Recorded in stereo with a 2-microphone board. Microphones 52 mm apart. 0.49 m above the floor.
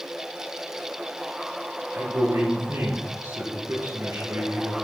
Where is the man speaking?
85° right, 6 m.